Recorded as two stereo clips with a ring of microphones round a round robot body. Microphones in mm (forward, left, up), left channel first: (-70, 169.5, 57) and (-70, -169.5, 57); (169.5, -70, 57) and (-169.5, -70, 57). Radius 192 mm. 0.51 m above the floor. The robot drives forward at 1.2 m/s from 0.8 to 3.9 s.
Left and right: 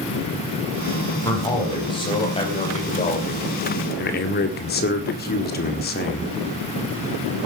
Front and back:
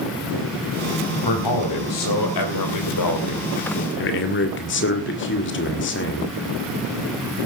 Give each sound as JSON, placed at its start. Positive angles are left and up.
{"t": 1.2, "sound": "a man speaking", "azimuth_deg": 10, "distance_m": 4.5}